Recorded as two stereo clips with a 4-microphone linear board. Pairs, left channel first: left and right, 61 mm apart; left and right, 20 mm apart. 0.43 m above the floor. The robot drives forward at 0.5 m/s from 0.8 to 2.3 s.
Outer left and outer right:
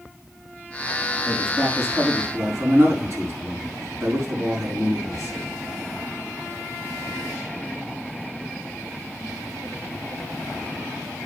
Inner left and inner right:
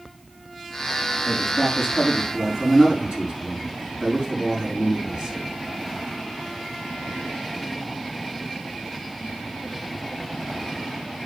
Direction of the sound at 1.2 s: 55° right (ahead or behind).